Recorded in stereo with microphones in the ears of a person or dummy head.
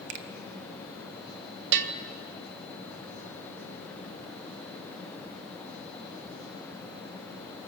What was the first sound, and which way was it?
A finger snap, 65° right (ahead or behind).